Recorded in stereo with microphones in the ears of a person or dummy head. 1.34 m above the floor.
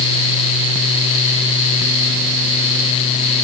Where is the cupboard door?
No cupboard door in this recording.